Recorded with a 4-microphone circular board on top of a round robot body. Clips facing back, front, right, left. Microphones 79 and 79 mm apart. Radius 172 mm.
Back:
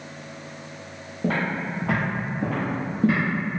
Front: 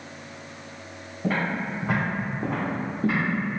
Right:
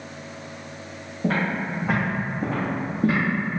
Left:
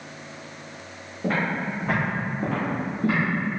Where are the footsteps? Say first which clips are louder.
Back 1 dB, right 1 dB; 175° left, 1.4 m; by 3.2 s 130° right, 0.8 m.